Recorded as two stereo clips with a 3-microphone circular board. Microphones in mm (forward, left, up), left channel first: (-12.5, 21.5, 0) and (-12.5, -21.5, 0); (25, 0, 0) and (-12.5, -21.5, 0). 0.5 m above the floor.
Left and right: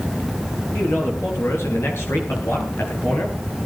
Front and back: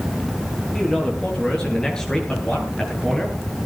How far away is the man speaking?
About 9.5 m.